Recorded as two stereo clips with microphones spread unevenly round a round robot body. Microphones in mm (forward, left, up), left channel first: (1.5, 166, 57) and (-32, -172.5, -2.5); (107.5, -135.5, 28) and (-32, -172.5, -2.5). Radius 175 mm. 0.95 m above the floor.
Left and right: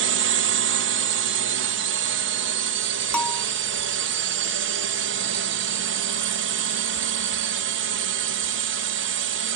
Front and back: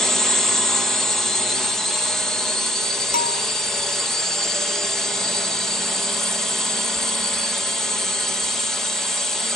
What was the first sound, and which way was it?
A drone, 85° right.